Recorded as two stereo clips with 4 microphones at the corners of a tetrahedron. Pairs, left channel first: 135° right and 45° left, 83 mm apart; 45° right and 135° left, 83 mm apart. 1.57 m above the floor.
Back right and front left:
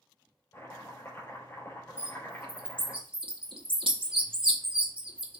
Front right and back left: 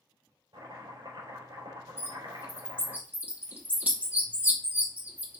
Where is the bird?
65° left, 2 m.